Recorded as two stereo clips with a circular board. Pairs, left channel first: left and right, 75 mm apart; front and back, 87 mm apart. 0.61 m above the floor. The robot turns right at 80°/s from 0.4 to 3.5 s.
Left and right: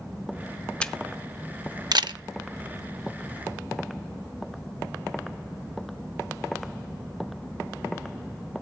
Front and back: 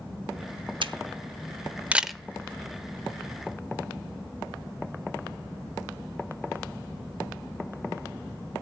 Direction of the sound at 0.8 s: 165° left.